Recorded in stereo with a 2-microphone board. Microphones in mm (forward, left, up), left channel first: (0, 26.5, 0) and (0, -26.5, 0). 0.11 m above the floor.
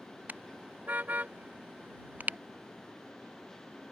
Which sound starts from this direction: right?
A car horn, at 0.3 s.